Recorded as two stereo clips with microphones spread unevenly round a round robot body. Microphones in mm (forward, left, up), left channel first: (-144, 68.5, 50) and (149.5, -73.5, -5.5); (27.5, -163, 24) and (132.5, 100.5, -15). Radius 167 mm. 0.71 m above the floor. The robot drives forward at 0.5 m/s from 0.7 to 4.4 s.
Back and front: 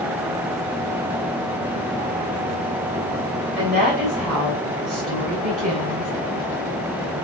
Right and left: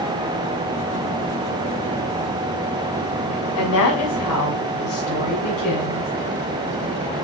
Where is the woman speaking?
85° right, 4 m; by 6.1 s 90° right, 4 m.